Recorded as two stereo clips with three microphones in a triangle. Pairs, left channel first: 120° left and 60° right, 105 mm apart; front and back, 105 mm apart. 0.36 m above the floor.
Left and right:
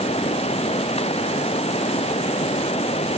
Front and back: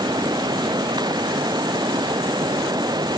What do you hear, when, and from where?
0.0 s running water: 130° left